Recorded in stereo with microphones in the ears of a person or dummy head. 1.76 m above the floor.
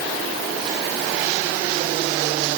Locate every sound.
Only background noise.